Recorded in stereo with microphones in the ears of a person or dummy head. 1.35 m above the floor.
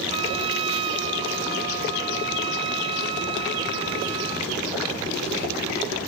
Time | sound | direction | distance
0.1 | a trumpet | 30° right (ahead or behind) | ?